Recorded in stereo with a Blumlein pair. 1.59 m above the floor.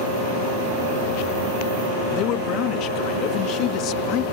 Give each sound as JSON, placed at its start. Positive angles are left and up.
{"t": 2.1, "sound": "a man speaking", "azimuth_deg": 35}